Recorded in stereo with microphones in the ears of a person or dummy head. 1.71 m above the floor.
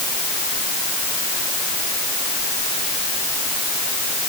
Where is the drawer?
No drawer in this recording.